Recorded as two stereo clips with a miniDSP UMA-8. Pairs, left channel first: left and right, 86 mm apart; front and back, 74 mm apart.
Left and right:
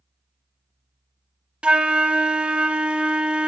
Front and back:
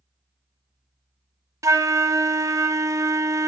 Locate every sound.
1.6 s a flute: 165° right, 0.6 m